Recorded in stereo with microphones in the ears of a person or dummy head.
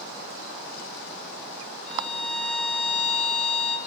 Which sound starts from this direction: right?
A violin, at 1.9 s.